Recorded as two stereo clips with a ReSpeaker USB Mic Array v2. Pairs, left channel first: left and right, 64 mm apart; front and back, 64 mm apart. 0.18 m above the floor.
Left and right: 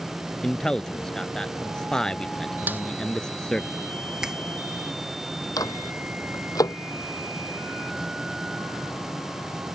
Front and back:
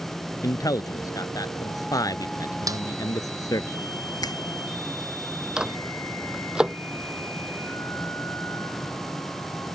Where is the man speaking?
10° left.